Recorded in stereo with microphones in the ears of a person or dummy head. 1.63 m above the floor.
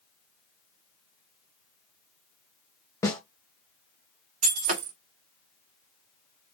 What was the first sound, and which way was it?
A snare drum, 10° left (ahead or behind).